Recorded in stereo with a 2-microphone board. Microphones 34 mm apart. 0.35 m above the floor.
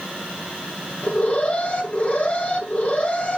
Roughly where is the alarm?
Left.